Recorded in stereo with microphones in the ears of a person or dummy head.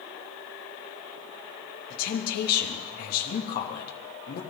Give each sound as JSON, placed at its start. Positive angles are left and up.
{"t": 1.9, "sound": "a woman speaking", "side_deg": 55, "distance_m": 3.0}